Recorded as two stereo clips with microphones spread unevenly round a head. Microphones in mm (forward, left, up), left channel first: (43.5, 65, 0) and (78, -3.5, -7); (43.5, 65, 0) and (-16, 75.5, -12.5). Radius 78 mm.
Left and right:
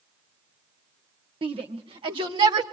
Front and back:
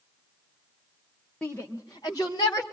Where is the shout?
95° right, 1.5 m; by 2.6 s 65° right, 3 m.